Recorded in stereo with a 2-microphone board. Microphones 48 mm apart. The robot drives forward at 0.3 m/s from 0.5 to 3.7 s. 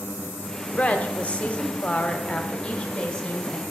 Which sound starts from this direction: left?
A woman speaking, at 0.8 s.